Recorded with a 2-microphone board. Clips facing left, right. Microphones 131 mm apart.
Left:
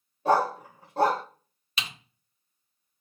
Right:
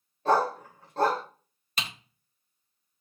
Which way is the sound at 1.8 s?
45° right (ahead or behind).